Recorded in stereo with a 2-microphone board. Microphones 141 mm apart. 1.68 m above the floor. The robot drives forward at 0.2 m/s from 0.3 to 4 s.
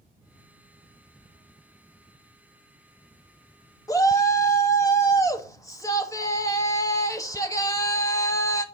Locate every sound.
3.9 s a shout: 25° left (ahead or behind), 0.9 m; by 8.6 s 20° left (ahead or behind), 1.0 m